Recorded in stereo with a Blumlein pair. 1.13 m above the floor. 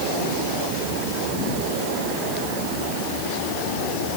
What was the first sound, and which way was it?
Only background noise.